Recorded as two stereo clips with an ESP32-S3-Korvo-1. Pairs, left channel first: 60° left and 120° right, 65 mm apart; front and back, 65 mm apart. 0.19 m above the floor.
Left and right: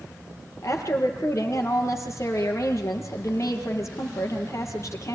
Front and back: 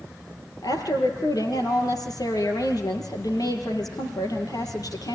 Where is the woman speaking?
20° left, 6 m.